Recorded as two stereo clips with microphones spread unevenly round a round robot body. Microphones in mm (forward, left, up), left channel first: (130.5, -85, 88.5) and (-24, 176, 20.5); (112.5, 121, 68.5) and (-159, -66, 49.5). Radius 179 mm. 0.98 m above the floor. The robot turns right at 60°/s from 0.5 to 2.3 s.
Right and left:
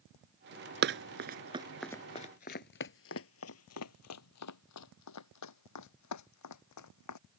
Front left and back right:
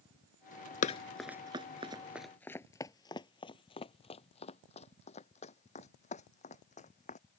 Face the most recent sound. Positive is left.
turn(degrees=-35)